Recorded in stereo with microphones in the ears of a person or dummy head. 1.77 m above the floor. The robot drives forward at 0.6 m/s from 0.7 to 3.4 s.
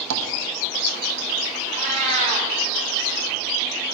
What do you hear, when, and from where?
0.1 s tapping: 80° right, 1.2 m
1.7 s a cat meowing: 40° right (ahead or behind), 2.5 m; by 2.5 s 35° right (ahead or behind), 3 m